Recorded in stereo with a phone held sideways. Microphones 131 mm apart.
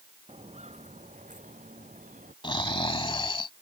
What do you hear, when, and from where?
0.3 s footsteps: 55° right (ahead or behind); by 2.3 s 80° right
2.4 s snoring: 40° left (ahead or behind)